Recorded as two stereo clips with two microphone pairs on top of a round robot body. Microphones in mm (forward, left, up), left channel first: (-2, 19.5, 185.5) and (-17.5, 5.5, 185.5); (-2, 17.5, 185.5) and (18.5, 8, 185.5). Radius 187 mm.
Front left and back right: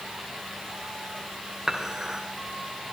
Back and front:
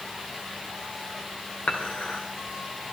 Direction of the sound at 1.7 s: 160° left.